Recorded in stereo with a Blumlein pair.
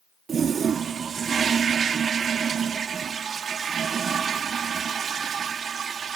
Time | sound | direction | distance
0.3 | a toilet flushing | 20° right | ?